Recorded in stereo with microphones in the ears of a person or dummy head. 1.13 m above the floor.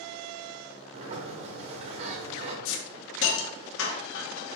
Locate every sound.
0.9 s a sliding door: 35° right (ahead or behind), 1.4 m
2.6 s a hiss: 80° left, 1.5 m